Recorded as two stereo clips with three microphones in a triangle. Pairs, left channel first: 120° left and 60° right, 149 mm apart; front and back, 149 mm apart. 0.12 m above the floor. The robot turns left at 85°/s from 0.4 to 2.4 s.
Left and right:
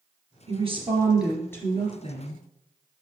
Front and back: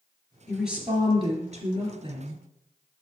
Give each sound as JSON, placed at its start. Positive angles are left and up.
{"t": 0.5, "sound": "a woman speaking", "azimuth_deg": -80, "distance_m": 2.5}